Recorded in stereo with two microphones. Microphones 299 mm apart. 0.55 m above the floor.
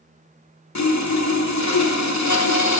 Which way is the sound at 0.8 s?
75° left (ahead or behind).